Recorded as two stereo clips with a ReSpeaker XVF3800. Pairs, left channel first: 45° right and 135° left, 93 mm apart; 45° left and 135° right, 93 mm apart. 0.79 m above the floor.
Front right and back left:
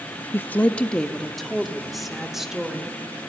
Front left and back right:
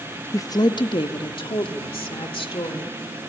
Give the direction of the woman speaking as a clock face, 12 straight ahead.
12 o'clock.